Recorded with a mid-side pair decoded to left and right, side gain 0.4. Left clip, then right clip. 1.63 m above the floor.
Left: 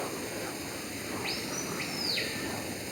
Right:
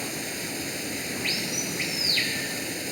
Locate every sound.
0.0 s running water: 60° right